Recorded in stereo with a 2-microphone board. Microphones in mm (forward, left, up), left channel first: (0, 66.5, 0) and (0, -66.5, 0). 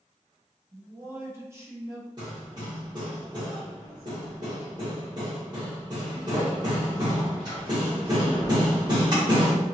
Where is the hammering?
35° right (ahead or behind), 1.3 m.